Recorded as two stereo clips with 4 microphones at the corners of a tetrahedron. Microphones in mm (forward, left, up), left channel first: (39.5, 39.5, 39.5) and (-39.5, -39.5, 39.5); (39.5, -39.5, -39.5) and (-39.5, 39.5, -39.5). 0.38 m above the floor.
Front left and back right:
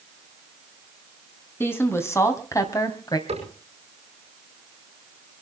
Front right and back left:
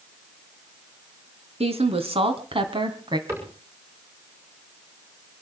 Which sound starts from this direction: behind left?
A woman speaking, at 1.6 s.